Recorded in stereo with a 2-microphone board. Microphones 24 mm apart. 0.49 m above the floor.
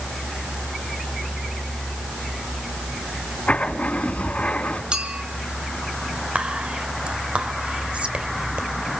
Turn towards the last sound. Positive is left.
turn(degrees=-60)  # may be behind; listen again after turning